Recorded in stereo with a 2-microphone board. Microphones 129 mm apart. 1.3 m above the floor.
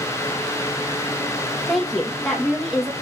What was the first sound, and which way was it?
A woman speaking, centre (ahead or behind).